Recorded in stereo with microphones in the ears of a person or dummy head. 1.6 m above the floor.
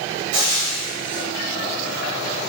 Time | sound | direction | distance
0.3 | frying | 75° right (ahead or behind) | 1.3 m